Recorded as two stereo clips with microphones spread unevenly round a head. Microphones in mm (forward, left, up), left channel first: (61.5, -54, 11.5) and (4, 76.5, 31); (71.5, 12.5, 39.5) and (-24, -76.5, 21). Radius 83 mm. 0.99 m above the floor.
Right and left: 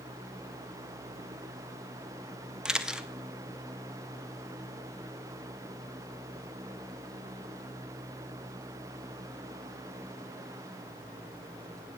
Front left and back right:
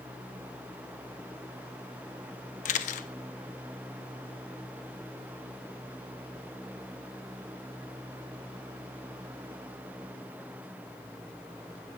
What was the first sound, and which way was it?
A camera shutter, 30° left.